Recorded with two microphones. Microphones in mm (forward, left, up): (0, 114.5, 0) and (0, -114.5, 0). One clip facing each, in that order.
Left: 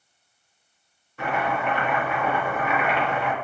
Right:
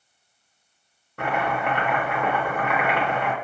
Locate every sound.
1.2 s chopping: 65° right (ahead or behind), 0.5 m